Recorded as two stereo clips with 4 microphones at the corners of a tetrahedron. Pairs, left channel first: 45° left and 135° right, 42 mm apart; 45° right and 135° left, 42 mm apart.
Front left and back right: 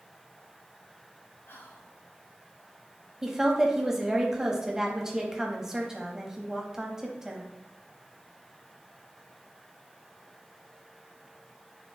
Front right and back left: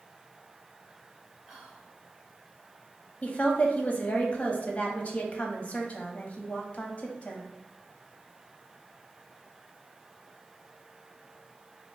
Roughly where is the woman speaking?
Ahead right.